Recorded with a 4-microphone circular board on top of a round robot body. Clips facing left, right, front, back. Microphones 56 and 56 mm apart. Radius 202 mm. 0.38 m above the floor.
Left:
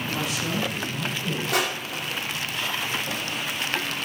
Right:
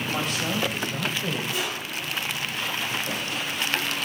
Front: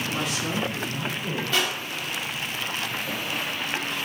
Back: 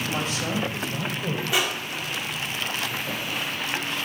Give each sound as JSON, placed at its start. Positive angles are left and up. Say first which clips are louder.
{"t": 0.1, "sound": "a woman speaking", "louder": "right 1 dB, back 1 dB", "azimuth_deg": -130, "distance_m": 3.5}
{"t": 1.5, "sound": "crushing", "louder": "left 4 dB, even", "azimuth_deg": 105, "distance_m": 2.5}